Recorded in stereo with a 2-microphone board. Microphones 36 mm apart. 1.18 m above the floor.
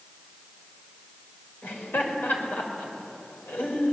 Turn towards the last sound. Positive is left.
turn(degrees=75)  # may be behind; listen again after turning